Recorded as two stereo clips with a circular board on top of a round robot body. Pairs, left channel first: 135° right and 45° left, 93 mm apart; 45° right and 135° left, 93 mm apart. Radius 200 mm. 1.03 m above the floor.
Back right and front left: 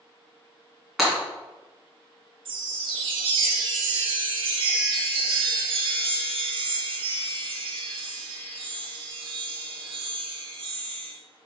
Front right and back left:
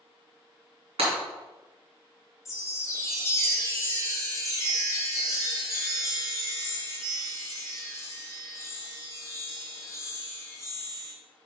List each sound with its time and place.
1.0 s breaking glass: 130° left, 2.5 m
2.5 s a chime: 15° left, 0.6 m